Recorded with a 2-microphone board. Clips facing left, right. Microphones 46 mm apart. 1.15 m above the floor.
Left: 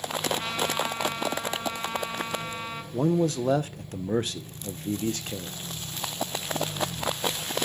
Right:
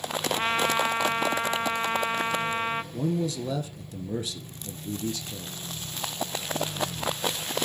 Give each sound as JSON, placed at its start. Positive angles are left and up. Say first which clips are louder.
{"t": 0.3, "sound": "a trumpet", "louder": "right 4 dB", "side_deg": -40, "distance_m": 0.8}
{"t": 2.9, "sound": "a man speaking", "louder": "left 4 dB", "side_deg": 55, "distance_m": 0.8}